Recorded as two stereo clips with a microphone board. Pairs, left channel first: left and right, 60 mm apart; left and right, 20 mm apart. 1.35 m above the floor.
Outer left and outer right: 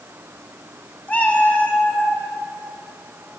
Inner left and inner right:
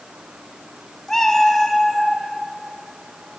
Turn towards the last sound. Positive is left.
turn(degrees=25)  # may be behind; listen again after turning